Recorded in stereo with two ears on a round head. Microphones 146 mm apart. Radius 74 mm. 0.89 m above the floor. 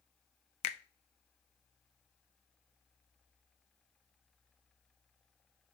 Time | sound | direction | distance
0.6 | a finger snap | 40° left (ahead or behind) | 0.7 m